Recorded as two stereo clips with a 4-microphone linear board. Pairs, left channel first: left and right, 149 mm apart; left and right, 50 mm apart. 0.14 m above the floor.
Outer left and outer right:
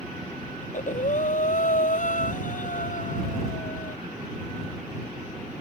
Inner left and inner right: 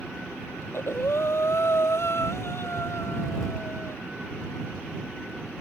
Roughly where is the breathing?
Left.